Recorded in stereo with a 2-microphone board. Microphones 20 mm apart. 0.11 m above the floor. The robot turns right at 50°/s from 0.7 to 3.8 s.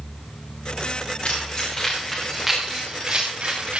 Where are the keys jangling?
60° left (ahead or behind), 7.5 m; by 3.8 s 65° right (ahead or behind), 7.5 m.